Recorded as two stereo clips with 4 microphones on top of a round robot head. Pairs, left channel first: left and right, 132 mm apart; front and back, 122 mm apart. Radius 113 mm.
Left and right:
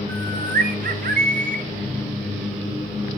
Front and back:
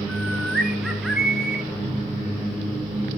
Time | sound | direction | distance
0.1 | a bird | 95° right | 0.8 m